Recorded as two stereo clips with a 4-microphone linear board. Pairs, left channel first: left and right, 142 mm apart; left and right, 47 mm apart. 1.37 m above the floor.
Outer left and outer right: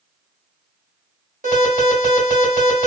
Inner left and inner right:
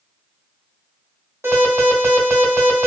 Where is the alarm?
75° right (ahead or behind), 1.7 m.